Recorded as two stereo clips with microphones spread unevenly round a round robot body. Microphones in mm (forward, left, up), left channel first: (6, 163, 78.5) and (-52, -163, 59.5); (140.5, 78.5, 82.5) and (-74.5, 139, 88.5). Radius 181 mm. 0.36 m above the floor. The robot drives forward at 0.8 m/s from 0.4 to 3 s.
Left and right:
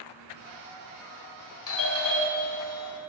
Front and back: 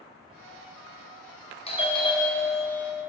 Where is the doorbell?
40° left, 2.5 m; by 3.0 s 70° left, 2 m.